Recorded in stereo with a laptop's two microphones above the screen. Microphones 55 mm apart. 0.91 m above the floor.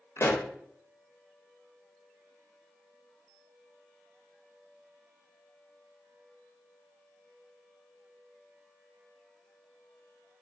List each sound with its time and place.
0.2 s a pop: 50° left (ahead or behind), 0.5 m